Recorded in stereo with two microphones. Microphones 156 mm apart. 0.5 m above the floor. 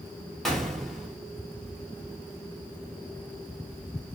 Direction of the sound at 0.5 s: 5° left (ahead or behind).